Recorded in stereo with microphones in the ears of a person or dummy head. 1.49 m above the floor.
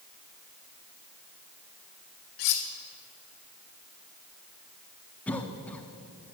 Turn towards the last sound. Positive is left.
turn(degrees=10)  # may be behind; listen again after turning